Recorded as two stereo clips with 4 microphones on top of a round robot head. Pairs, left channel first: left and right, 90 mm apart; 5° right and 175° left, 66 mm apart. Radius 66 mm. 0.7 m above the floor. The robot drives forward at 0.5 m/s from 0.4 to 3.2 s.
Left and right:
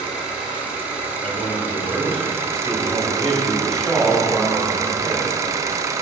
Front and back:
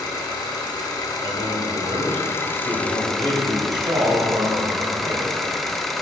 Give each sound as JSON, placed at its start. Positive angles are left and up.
{"t": 0.0, "sound": "an engine running", "azimuth_deg": -15, "distance_m": 1.5}
{"t": 1.2, "sound": "a man speaking", "azimuth_deg": 170, "distance_m": 2.5}